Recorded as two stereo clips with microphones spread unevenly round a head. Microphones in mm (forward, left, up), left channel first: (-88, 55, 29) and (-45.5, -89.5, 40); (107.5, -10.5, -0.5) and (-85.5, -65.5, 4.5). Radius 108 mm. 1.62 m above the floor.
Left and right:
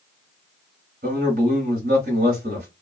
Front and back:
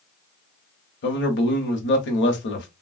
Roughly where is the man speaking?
Ahead.